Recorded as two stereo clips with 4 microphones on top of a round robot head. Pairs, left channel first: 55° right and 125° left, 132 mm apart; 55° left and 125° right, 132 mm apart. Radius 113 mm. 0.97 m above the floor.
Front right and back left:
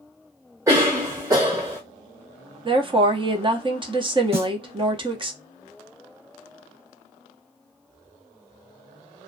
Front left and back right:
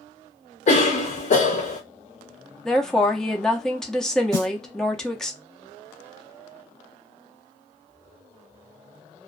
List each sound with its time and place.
0.7 s a cough: 60° left, 0.6 m
2.6 s a woman speaking: 135° left, 0.8 m
4.3 s a snare drum: 170° left, 1.1 m